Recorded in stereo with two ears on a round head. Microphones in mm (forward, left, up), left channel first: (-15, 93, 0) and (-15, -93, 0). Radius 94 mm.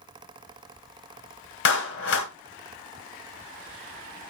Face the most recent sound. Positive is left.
turn(degrees=55)  # may be behind; listen again after turning